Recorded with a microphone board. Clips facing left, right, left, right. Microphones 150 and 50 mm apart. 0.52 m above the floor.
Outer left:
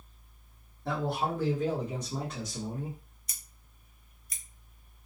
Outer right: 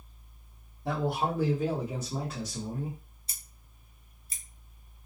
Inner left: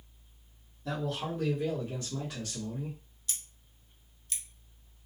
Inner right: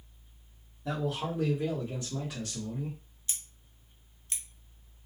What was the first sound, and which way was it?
A man speaking, 15° right (ahead or behind).